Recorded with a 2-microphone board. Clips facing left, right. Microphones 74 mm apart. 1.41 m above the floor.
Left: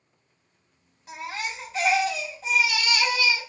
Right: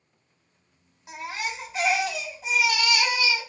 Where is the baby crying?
10° right (ahead or behind), 1.5 m.